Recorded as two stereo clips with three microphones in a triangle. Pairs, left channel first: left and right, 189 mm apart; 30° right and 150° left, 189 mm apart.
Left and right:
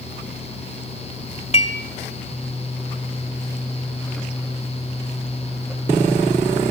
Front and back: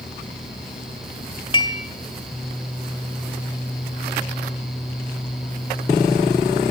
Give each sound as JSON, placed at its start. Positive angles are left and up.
{"t": 1.5, "sound": "dishes clattering", "azimuth_deg": 35, "distance_m": 2.0}